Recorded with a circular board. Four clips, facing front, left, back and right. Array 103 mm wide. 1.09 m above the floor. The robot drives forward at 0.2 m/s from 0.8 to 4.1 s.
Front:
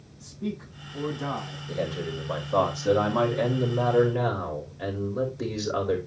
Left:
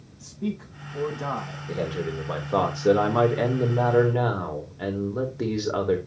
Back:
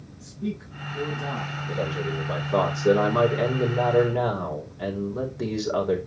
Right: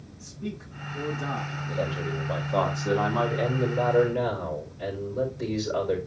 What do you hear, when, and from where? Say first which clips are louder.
0.2 s a man speaking: left 6 dB, back 2 dB; 75° left, 7.5 m
1.7 s a man speaking: left 2 dB, back 1 dB; 110° left, 3 m; by 6.0 s 120° left, 3.5 m